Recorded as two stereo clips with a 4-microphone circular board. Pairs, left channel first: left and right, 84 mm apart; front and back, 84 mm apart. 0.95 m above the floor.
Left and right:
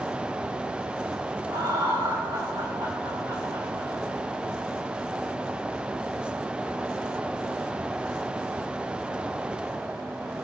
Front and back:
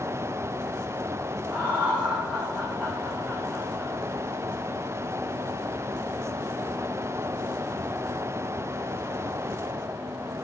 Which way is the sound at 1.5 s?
100° right.